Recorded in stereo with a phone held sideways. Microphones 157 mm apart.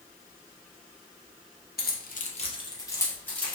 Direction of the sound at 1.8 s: 85° left.